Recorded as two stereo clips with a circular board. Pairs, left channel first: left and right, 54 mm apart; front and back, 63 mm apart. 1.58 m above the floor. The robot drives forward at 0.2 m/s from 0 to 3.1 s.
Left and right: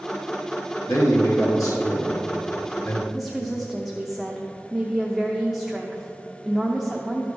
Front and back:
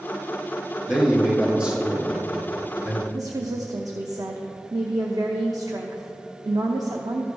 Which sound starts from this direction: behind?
A woman speaking, at 3.1 s.